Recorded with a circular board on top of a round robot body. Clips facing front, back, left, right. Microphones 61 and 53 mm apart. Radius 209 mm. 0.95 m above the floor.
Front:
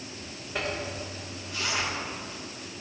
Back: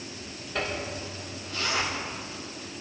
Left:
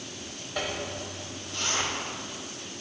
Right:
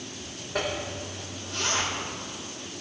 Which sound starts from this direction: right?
A zipper, at 0.6 s.